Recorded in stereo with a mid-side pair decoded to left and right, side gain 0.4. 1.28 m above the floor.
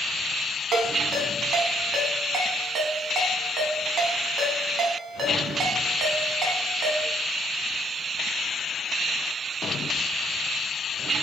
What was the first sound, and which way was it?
A ringtone, 65° right.